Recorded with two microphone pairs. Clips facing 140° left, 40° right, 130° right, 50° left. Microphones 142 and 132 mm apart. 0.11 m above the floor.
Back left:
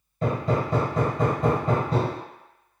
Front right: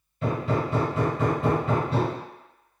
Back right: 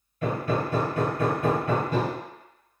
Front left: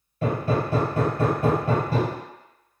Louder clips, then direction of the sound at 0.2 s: Back left 1 dB, front left 2 dB; 100° left.